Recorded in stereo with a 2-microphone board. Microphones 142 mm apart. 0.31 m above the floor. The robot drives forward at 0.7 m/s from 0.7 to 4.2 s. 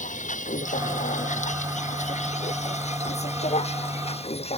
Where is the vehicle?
65° left (ahead or behind); by 4.6 s 45° left (ahead or behind).